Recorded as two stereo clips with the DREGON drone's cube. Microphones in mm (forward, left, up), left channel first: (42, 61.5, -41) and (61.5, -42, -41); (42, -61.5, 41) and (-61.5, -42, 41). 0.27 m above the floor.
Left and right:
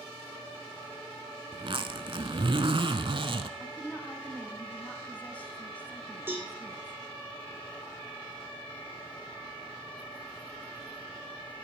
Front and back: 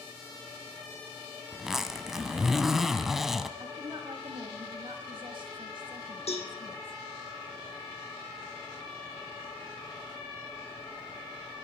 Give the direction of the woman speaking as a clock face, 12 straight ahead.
6 o'clock.